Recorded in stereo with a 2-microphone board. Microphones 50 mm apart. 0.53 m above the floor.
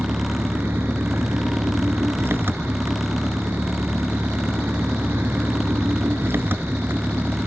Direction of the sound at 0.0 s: 50° right (ahead or behind).